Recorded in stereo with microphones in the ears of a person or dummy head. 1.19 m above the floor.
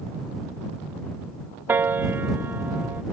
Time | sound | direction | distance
1.7 | a piano | 10° right (ahead or behind) | ?